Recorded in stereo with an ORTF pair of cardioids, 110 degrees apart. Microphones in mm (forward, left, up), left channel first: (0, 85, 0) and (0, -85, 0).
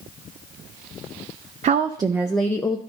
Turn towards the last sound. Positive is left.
turn(degrees=25)